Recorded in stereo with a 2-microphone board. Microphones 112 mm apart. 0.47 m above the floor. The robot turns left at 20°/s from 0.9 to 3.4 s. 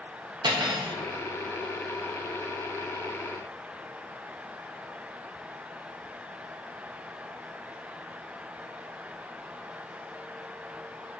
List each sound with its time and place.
0.4 s cutlery clinking: 40° right (ahead or behind), 0.5 m